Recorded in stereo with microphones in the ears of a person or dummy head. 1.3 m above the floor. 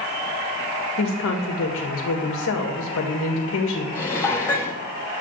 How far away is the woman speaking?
About 1.7 m.